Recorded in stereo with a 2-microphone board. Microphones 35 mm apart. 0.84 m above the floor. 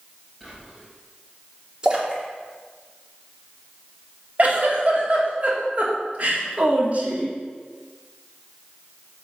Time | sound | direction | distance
0.4 | whispering | centre (ahead or behind) | 4 m
1.8 | a splash | 25° right (ahead or behind) | 2.5 m
4.4 | a giggle | 40° right (ahead or behind) | 2.5 m